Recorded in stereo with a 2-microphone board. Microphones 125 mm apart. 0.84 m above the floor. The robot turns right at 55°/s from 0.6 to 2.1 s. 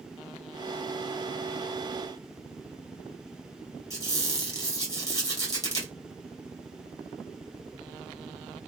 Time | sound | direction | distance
3.9 | a squeak | 30° left (ahead or behind) | 1.8 m